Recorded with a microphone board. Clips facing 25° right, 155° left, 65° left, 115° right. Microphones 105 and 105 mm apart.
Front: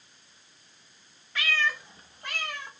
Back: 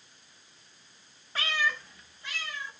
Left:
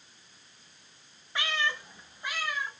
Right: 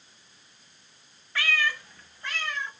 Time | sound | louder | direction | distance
1.4 | a cat meowing | front 1 dB, right 3 dB | 130° left | 0.9 m